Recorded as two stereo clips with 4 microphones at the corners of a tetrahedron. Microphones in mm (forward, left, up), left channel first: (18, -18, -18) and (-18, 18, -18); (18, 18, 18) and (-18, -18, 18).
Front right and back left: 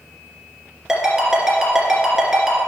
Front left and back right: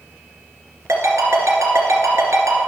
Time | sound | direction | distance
0.9 | a ringtone | 145° right | 2.5 m